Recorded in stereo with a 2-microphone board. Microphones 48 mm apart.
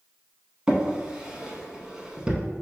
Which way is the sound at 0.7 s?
15° right (ahead or behind).